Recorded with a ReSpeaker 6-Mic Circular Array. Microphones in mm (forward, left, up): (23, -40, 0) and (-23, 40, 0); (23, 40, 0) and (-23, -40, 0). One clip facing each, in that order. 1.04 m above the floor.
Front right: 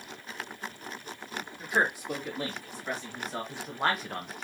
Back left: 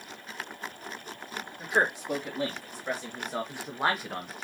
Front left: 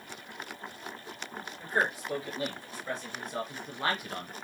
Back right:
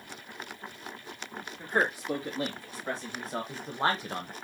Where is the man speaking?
175° right, 2.5 m; by 4.3 s 145° right, 0.7 m.